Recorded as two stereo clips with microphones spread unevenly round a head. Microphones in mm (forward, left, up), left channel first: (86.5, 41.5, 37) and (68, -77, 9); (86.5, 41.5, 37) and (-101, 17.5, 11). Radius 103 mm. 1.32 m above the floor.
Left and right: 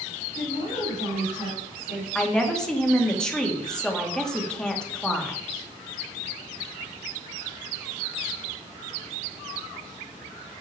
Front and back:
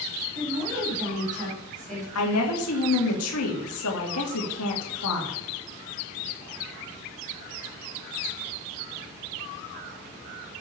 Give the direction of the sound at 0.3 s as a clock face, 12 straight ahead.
7 o'clock.